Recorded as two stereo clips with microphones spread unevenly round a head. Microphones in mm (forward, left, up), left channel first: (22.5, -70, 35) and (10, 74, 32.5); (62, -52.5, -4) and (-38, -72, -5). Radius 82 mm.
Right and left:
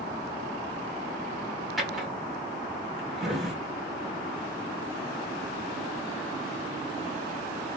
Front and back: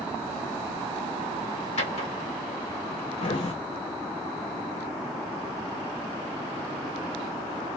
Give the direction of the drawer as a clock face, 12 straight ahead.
12 o'clock.